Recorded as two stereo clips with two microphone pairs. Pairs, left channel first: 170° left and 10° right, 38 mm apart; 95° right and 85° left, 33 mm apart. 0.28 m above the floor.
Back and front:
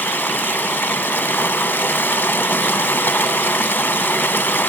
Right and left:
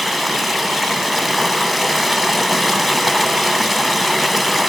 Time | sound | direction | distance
0.0 | running water | 175° left | 0.9 m